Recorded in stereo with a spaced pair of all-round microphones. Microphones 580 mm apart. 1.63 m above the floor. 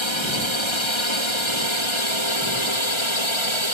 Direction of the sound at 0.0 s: 55° left (ahead or behind).